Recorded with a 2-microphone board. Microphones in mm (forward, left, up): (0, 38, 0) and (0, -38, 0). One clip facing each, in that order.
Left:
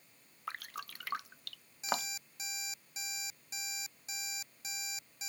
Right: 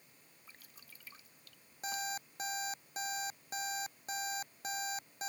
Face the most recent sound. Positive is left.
turn(degrees=-50)  # may be behind; listen again after turning